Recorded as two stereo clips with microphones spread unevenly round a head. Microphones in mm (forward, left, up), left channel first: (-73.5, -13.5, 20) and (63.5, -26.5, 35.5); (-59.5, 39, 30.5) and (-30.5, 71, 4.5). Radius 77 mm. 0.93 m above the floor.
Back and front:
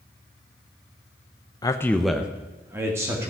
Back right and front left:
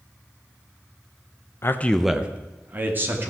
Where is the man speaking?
175° right, 0.6 m; by 3.3 s 65° left, 2.5 m.